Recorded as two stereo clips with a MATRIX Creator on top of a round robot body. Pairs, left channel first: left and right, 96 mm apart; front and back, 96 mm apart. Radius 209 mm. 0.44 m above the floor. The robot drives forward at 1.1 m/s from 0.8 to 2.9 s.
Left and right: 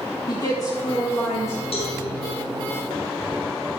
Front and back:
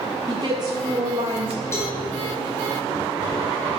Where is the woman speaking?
140° left, 1.8 m; by 1.6 s 155° left, 2.5 m.